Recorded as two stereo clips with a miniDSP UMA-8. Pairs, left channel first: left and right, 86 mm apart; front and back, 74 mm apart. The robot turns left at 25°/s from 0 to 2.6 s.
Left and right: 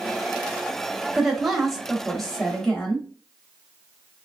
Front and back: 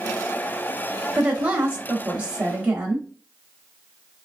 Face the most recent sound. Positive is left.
turn(degrees=155)